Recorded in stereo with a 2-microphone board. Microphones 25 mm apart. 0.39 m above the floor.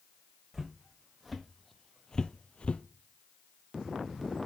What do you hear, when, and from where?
0.5 s footsteps: 15° right (ahead or behind), 1.3 m; by 2.8 s 50° left (ahead or behind), 0.6 m